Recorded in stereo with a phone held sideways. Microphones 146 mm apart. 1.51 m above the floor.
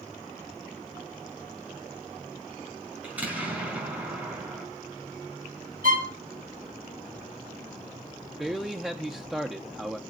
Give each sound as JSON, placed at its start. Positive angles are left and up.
{"t": 3.0, "sound": "an explosion", "side_deg": -10, "distance_m": 4.5}
{"t": 5.8, "sound": "a violin", "side_deg": -65, "distance_m": 1.7}
{"t": 8.4, "sound": "a man speaking", "side_deg": -5, "distance_m": 0.8}